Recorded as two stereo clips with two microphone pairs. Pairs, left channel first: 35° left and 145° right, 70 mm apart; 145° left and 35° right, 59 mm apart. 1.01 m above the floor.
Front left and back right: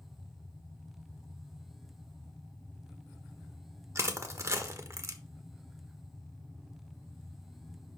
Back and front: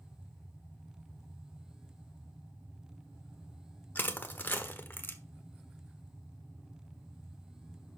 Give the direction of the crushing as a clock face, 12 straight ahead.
6 o'clock.